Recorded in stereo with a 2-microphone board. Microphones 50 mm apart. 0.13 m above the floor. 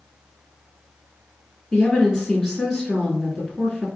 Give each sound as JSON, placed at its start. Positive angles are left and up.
{"t": 1.7, "sound": "a woman speaking", "side_deg": 0, "distance_m": 1.8}